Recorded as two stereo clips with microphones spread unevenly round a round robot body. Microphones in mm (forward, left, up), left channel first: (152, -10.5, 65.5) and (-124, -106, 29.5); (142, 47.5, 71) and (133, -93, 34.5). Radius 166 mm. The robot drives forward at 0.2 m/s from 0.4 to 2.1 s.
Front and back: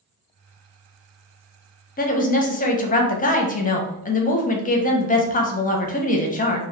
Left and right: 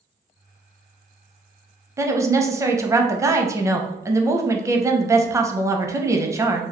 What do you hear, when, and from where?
2.0 s a woman speaking: 40° right, 0.6 m; by 6.6 s 45° right, 0.5 m